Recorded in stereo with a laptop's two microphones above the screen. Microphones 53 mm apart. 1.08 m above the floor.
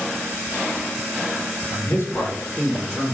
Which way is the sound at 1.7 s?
60° left (ahead or behind).